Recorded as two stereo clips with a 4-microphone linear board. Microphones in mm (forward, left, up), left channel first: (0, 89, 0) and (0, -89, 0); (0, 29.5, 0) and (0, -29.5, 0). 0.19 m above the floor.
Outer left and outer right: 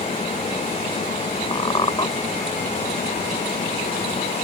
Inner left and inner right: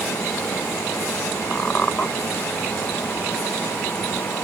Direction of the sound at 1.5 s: 30° left (ahead or behind).